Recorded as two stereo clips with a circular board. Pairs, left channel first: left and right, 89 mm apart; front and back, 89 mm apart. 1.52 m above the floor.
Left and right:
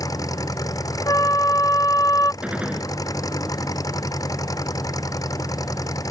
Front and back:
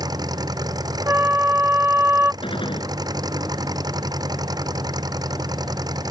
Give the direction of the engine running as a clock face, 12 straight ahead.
7 o'clock.